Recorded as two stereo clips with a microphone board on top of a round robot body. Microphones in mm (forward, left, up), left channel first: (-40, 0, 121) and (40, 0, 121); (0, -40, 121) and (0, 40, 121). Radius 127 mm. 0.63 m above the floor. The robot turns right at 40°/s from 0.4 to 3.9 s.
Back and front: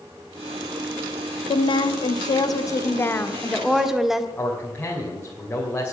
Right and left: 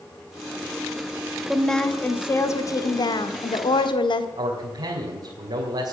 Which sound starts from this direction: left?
A man speaking, at 4.4 s.